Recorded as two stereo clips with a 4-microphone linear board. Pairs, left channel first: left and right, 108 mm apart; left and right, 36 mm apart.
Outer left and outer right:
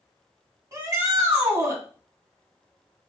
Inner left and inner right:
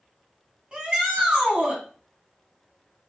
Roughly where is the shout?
Right.